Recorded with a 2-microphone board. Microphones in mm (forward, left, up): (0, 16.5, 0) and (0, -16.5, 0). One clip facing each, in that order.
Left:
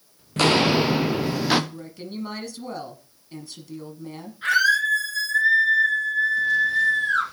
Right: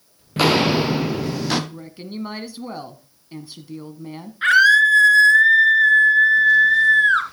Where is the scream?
55° right (ahead or behind), 2.5 m.